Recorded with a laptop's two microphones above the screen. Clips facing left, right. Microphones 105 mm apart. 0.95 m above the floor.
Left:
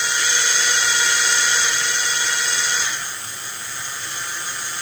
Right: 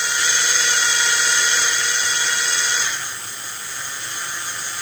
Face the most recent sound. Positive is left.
No sound to turn to.